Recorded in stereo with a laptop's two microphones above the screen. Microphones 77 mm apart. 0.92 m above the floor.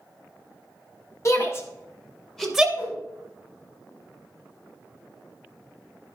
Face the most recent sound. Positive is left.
turn(degrees=45)  # may be behind; listen again after turning